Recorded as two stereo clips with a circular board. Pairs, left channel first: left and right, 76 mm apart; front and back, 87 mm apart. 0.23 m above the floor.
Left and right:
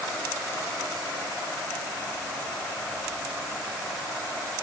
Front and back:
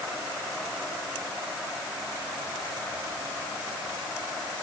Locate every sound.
Only background noise.